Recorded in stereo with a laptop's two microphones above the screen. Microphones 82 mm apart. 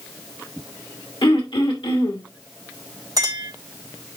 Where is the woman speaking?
I don't hear a woman speaking.